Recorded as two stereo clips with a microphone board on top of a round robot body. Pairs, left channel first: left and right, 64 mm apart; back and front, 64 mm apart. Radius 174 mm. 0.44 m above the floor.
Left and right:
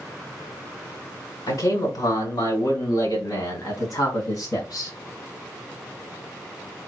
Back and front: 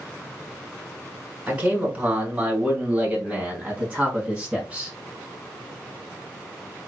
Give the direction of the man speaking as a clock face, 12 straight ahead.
10 o'clock.